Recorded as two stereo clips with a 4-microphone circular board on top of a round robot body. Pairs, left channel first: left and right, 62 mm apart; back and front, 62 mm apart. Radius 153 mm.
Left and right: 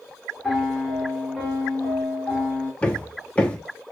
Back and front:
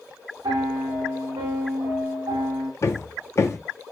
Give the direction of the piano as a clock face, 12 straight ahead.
12 o'clock.